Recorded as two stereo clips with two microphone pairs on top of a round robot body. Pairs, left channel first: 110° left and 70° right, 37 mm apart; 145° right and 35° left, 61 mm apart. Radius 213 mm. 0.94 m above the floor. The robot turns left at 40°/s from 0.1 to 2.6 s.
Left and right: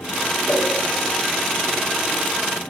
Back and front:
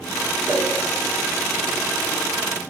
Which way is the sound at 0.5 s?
80° left.